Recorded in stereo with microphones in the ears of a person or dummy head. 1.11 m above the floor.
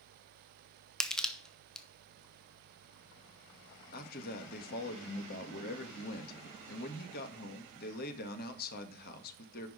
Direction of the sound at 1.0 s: Centre (ahead or behind).